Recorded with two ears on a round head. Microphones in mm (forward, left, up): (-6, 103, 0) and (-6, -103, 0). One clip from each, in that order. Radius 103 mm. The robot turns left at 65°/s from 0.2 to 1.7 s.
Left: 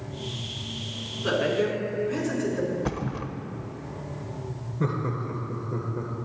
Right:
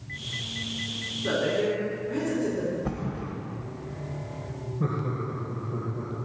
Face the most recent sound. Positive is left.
turn(degrees=55)  # may be behind; listen again after turning